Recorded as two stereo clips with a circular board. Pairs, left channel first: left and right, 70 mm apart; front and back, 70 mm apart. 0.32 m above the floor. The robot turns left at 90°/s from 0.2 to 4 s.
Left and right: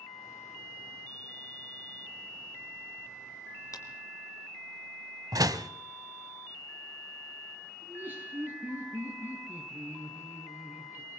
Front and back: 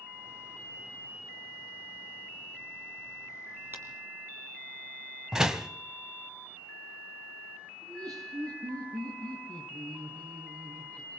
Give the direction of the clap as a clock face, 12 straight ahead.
8 o'clock.